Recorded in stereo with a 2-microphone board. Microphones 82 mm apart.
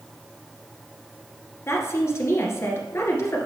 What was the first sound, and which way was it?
A woman speaking, 35° left (ahead or behind).